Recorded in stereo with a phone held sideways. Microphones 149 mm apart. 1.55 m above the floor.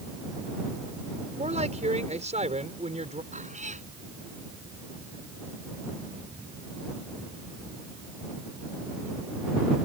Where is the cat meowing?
55° right (ahead or behind).